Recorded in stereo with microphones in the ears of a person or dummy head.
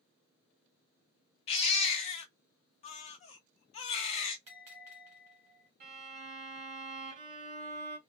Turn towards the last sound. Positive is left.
turn(degrees=-45)  # may be behind; listen again after turning